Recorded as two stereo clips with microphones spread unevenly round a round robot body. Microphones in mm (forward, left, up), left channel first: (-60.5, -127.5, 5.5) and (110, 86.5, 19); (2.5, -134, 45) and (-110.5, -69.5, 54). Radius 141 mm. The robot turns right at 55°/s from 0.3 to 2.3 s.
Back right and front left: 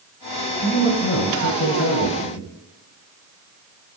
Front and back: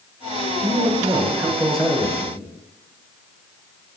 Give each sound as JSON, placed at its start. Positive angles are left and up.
{"t": 0.6, "sound": "a man speaking", "azimuth_deg": 180, "distance_m": 1.5}